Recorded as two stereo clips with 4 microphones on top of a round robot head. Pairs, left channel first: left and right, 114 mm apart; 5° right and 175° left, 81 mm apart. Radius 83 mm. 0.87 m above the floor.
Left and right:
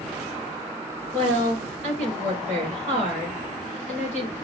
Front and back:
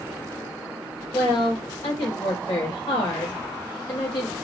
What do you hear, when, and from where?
1.1 s a woman speaking: 70° right, 3.5 m